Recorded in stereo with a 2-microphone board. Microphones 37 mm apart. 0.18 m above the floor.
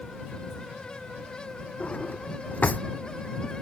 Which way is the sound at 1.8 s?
45° left (ahead or behind).